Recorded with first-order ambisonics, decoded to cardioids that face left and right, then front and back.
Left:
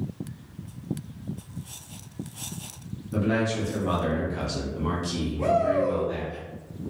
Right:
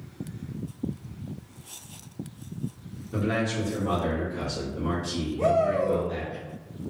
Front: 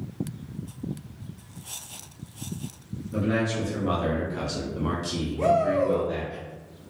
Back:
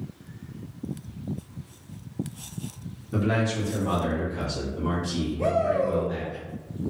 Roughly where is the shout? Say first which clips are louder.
Even, front 2 dB; ahead.